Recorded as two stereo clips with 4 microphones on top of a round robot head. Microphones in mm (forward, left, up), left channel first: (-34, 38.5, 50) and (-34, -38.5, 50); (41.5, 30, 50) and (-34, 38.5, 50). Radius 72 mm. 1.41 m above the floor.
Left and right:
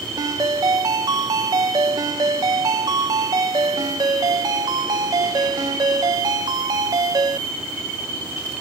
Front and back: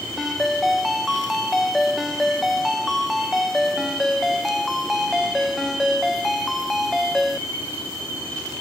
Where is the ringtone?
95° right.